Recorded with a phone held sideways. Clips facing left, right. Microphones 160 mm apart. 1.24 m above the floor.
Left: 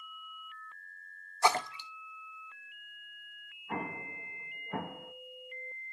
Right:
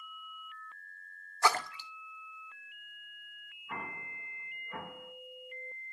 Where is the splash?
20° left (ahead or behind), 0.6 m.